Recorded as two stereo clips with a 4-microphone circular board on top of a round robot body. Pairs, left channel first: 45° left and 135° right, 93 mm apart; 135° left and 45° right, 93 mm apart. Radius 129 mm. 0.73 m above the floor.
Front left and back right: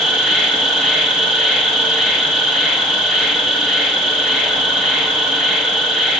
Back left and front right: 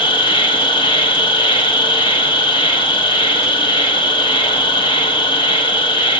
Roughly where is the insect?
Behind left.